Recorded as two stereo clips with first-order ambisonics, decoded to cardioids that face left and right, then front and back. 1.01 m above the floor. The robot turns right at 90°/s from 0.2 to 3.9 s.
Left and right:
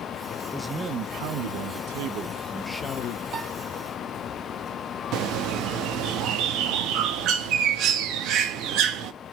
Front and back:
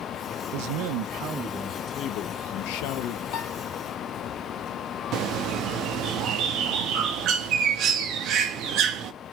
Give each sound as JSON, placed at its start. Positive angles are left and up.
{"t": 0.5, "sound": "a man speaking", "azimuth_deg": 170, "distance_m": 0.5}
{"t": 3.3, "sound": "a piano", "azimuth_deg": -30, "distance_m": 1.8}
{"t": 5.1, "sound": "a bird", "azimuth_deg": -135, "distance_m": 0.7}